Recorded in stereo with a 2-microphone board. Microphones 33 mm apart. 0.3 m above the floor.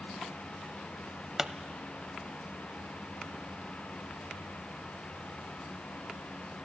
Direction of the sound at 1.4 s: 15° right (ahead or behind).